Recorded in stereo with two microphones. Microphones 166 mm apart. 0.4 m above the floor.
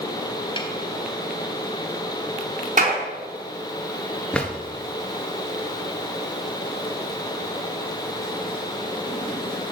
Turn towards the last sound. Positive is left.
turn(degrees=5)  # may be behind; listen again after turning